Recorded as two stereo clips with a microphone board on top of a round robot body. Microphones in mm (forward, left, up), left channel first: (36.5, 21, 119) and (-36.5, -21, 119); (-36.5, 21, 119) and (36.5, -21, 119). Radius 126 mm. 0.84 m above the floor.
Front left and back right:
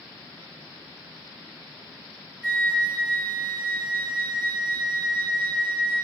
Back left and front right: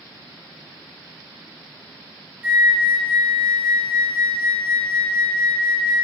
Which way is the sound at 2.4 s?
90° right.